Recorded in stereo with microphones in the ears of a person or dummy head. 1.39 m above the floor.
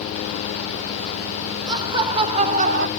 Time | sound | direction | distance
1.7 | laughter | 25° right (ahead or behind) | 1.6 m